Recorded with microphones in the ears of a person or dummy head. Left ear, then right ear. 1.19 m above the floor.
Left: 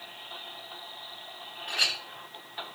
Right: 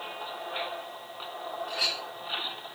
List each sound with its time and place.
1.7 s a clink: 20° left (ahead or behind), 1.0 m